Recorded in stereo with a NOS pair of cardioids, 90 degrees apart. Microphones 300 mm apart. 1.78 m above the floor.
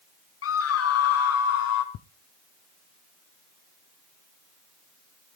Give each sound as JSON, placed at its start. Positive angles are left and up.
{"t": 0.4, "sound": "a scream", "azimuth_deg": 50, "distance_m": 1.1}
{"t": 1.9, "sound": "ticking", "azimuth_deg": 65, "distance_m": 0.7}